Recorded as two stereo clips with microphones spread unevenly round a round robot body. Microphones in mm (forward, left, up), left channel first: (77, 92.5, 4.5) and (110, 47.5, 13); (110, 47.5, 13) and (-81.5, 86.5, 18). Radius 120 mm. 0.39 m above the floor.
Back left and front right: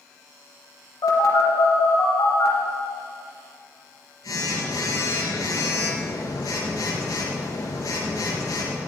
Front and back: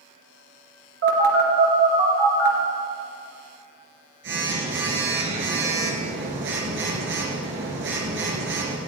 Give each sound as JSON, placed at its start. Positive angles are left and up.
{"t": 1.0, "sound": "a phone buzzing", "azimuth_deg": 140, "distance_m": 3.0}